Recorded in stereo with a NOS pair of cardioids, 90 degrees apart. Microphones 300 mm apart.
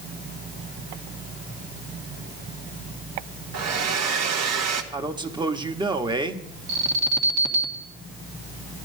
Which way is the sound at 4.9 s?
15° right.